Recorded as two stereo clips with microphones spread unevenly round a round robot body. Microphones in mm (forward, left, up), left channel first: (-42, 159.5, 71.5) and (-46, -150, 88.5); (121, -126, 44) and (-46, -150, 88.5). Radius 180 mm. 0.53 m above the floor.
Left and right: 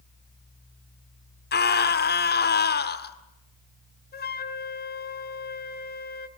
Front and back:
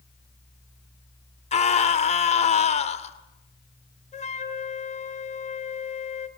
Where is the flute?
35° left, 1.4 m.